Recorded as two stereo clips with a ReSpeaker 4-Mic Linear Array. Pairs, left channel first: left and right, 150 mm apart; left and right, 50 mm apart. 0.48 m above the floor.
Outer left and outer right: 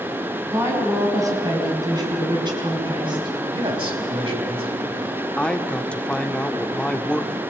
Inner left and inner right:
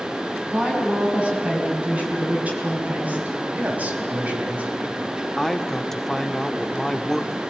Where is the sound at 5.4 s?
10° left (ahead or behind), 0.9 m.